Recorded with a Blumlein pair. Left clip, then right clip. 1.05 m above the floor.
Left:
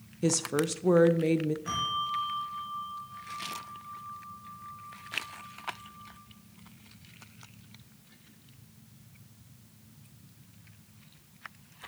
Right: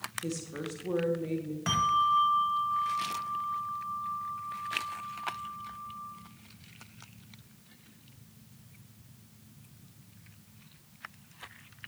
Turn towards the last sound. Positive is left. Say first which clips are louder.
# right 9 dB
turn(degrees=-60)